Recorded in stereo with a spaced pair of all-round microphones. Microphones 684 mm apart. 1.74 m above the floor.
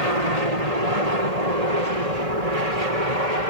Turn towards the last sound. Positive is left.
turn(degrees=-65)  # may be behind; listen again after turning